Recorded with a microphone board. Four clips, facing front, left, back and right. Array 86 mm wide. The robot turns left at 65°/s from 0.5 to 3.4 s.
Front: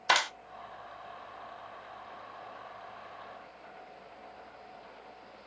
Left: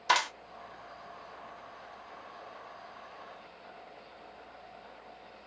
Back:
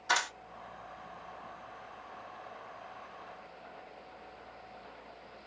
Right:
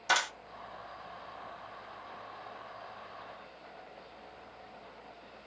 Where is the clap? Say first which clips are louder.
Left 3 dB, front 4 dB; 15° left, 1.5 m.